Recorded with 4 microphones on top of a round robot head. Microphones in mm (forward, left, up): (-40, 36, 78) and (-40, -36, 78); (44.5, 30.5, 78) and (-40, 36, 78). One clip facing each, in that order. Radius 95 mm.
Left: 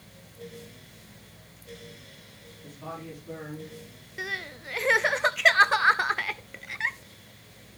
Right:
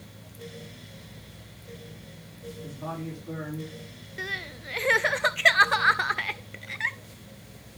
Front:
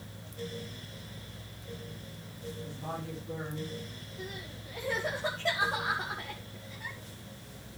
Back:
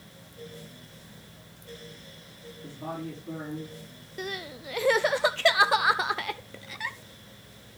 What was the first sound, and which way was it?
A man speaking, 155° right.